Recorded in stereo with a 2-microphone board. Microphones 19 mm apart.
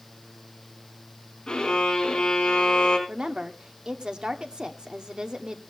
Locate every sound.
1.5 s a violin: 55° left (ahead or behind), 4.5 m
3.1 s a woman speaking: 55° right (ahead or behind), 1.2 m